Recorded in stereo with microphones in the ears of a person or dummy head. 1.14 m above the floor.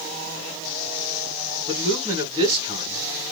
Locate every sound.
1.7 s a man speaking: 15° right (ahead or behind), 2.0 m